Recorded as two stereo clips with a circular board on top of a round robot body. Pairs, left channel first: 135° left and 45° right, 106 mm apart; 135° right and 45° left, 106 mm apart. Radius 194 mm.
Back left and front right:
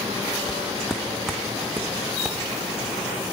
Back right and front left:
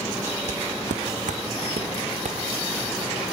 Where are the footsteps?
50° left, 0.9 m; by 3.0 s 45° left, 3 m.